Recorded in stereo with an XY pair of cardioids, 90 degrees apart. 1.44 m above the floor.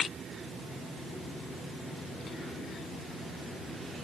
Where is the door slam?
No door slam in this recording.